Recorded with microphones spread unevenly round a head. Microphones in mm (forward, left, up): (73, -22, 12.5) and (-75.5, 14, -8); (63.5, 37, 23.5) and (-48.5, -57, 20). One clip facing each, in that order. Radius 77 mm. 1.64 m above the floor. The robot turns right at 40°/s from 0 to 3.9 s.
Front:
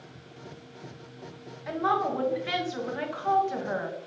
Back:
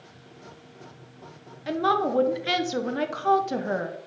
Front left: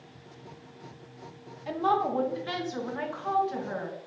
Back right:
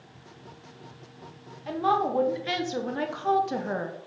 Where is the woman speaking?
125° left, 0.7 m; by 4.0 s 150° right, 0.7 m.